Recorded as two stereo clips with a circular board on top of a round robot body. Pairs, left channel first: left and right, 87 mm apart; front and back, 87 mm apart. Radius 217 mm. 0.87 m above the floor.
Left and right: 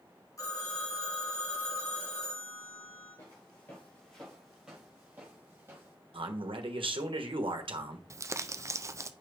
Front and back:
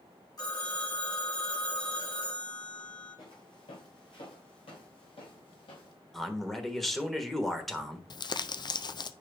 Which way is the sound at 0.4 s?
40° left.